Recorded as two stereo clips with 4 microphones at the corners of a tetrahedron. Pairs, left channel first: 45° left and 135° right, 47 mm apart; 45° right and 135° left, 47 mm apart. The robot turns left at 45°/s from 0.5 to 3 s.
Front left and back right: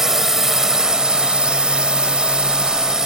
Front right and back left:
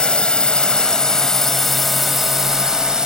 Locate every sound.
0.0 s a drone: 70° right; by 3.1 s 175° left